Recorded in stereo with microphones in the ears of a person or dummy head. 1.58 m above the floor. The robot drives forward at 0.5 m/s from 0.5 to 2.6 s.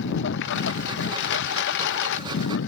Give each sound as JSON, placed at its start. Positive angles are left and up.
{"t": 0.0, "sound": "a lawn mower", "side_deg": 55}